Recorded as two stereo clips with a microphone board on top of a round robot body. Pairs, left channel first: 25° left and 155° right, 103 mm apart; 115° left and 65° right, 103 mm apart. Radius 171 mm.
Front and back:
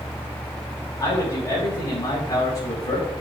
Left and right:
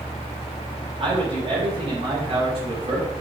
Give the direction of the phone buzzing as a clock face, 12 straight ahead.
I don't hear a phone buzzing.